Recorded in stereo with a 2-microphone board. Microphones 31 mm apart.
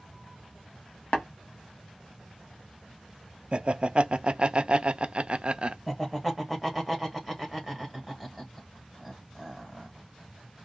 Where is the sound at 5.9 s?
5° left (ahead or behind), 1.5 m.